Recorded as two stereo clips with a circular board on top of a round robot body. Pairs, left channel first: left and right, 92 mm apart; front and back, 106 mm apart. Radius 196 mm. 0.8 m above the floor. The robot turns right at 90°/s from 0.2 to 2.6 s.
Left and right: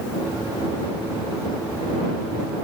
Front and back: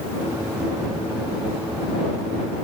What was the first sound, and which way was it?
Only background noise.